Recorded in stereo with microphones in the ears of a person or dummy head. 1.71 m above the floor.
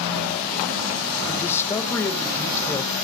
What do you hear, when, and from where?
1.3 s a man speaking: 15° left (ahead or behind), 1.9 m